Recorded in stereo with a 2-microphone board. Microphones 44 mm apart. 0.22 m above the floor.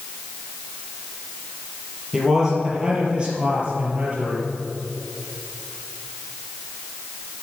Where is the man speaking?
10° right (ahead or behind), 4.5 m; by 4.5 s 35° right (ahead or behind), 4 m.